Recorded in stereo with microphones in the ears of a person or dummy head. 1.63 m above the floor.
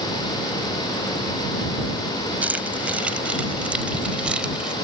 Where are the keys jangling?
5° right (ahead or behind); by 4.7 s centre (ahead or behind).